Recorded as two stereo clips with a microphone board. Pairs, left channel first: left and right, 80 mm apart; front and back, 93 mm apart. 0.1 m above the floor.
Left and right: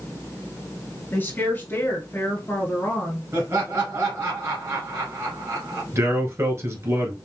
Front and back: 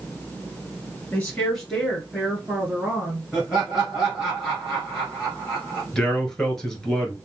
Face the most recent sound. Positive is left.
turn(degrees=-80)